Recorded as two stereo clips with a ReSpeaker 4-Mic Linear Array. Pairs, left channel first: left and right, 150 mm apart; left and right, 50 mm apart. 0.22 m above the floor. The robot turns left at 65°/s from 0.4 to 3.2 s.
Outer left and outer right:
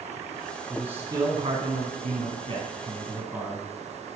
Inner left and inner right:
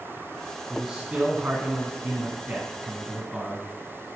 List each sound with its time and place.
0.7 s a man speaking: straight ahead, 2 m; by 3.7 s 165° right, 2 m